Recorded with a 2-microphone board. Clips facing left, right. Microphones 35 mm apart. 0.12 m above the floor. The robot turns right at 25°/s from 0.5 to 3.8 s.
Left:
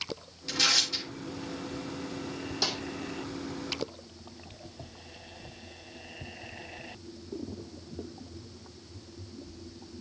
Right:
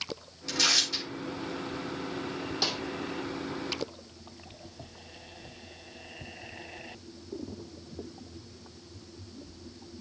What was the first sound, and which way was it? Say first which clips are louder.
Tearing paper: even; 5° left (ahead or behind).